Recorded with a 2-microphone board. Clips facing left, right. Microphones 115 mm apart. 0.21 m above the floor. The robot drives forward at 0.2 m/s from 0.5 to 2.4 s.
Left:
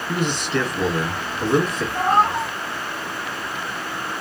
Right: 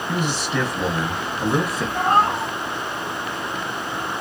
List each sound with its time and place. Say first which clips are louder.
0.1 s a man speaking: left 2 dB; 10° right (ahead or behind), 1.0 m
1.9 s a cat meowing: even; 55° right (ahead or behind), 1.4 m